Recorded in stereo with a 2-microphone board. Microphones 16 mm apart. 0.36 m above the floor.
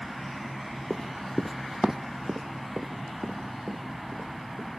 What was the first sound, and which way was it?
Running footsteps, 65° left (ahead or behind).